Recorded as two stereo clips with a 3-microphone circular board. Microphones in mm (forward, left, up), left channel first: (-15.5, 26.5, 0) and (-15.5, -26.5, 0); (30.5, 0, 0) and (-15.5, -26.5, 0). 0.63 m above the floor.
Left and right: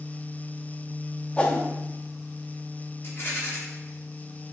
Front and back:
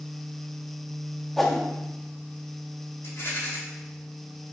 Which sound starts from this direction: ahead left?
A rattle, at 3.0 s.